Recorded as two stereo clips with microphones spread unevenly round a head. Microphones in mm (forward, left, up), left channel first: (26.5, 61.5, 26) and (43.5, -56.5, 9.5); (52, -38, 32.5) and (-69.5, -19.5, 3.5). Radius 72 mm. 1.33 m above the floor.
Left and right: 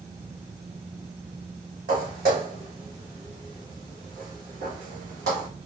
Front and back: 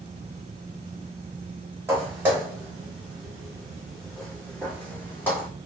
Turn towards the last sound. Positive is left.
turn(degrees=-70)